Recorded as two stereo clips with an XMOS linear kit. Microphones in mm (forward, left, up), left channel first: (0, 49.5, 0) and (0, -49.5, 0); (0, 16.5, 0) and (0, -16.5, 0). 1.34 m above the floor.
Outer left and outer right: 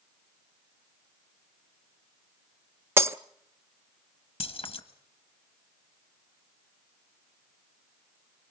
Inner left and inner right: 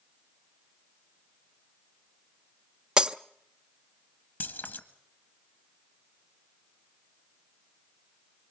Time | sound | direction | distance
3.0 | breaking glass | 25° right (ahead or behind) | 0.5 m
4.4 | keys jangling | 75° left (ahead or behind) | 1.3 m